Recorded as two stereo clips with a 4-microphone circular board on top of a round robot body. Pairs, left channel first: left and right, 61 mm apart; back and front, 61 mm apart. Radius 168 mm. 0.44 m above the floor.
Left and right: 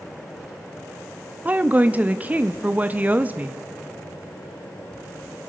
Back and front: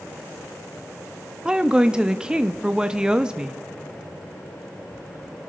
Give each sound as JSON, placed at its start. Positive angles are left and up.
{"t": 1.4, "sound": "a woman speaking", "azimuth_deg": -60, "distance_m": 0.7}